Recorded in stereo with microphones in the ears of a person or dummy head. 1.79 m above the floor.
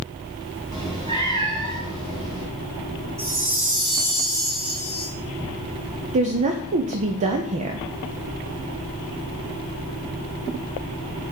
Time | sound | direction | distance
0.7 | a cat meowing | 30° right (ahead or behind) | 2.5 m
3.2 | a chime | 15° right (ahead or behind) | 3.5 m
6.1 | a woman speaking | 35° right (ahead or behind) | 0.5 m